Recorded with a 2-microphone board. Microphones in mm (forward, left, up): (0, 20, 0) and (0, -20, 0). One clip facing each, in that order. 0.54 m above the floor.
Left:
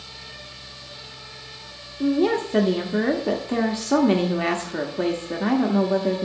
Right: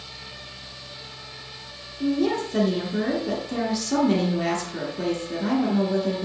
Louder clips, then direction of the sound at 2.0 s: Left 3 dB; 35° left (ahead or behind).